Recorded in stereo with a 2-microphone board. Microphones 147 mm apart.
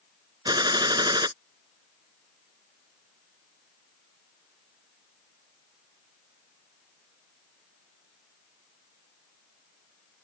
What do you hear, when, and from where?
0.5 s a gunshot: 30° right (ahead or behind)